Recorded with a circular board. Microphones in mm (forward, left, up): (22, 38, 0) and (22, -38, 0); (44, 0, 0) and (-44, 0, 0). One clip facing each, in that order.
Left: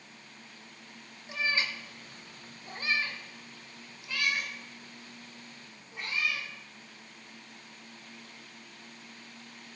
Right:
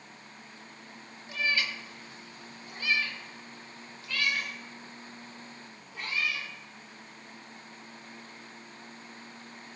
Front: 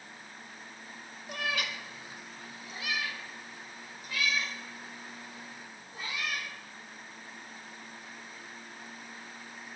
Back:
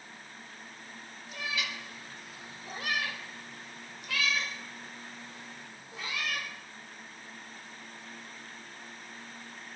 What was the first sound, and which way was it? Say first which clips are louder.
A cat meowing: right 1 dB, front 3 dB; 20° left.